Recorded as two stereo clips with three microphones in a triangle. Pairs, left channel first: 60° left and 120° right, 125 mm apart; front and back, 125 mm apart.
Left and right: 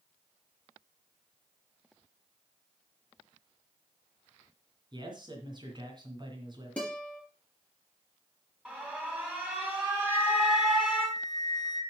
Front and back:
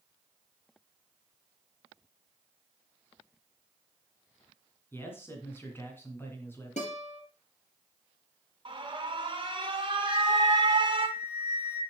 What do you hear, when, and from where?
4.9 s a man speaking: 70° right, 2.5 m
6.8 s a guitar: 20° right, 4 m
8.7 s an alarm: 165° left, 2.0 m
10.1 s a flute: 5° left, 1.4 m